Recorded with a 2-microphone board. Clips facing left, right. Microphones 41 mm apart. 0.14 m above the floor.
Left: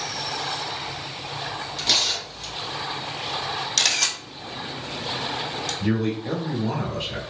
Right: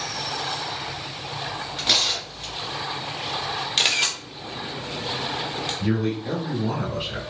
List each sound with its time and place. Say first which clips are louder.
1.8 s tearing paper: right 1 dB; 30° right (ahead or behind), 1.7 m
3.8 s a camera shutter: right 3 dB; 25° right (ahead or behind), 0.7 m
5.8 s a man speaking: left 1 dB; 10° right (ahead or behind), 1.1 m